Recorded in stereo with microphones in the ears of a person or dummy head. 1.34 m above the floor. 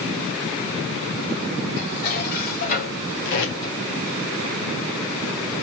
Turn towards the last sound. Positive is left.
turn(degrees=65)  # may be behind; listen again after turning